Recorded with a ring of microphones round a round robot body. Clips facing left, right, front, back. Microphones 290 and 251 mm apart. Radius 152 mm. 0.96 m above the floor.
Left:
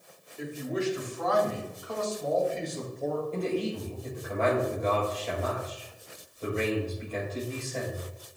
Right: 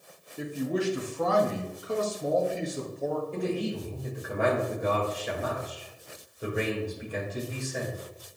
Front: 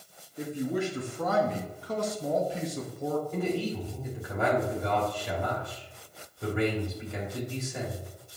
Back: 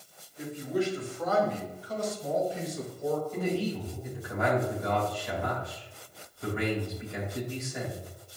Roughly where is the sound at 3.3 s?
Ahead.